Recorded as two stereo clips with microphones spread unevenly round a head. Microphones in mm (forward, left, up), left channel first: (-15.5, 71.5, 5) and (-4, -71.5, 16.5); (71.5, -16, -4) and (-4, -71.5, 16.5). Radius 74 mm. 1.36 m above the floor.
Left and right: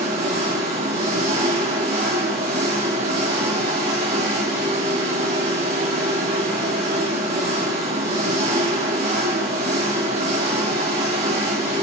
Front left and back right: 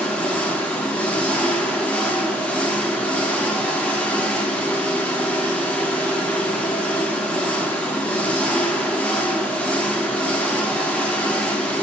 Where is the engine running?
45° right, 1.5 m.